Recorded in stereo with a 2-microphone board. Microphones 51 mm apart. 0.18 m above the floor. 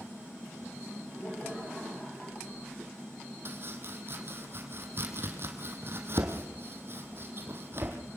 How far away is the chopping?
About 3 m.